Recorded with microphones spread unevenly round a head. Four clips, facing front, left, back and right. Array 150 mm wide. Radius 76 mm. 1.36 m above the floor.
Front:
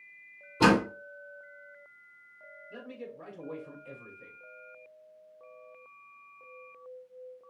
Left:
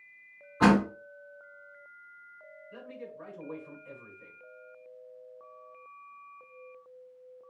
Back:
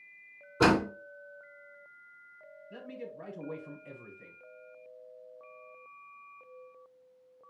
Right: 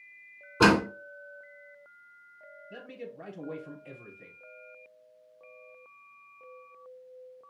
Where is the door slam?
115° right, 3 m.